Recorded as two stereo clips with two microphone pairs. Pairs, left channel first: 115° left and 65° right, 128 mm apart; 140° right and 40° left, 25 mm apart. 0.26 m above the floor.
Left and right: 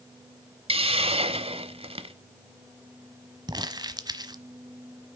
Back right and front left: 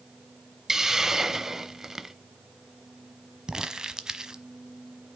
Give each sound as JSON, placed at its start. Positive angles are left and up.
{"t": 0.7, "sound": "a hiss", "azimuth_deg": -30, "distance_m": 0.7}
{"t": 3.5, "sound": "crumpling", "azimuth_deg": -15, "distance_m": 1.0}